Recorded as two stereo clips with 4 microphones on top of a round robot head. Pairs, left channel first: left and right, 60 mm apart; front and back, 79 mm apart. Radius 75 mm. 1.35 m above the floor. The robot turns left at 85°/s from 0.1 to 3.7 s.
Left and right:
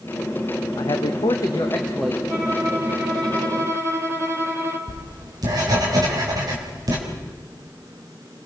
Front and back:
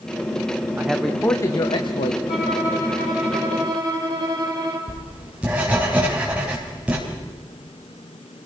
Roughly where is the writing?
Right.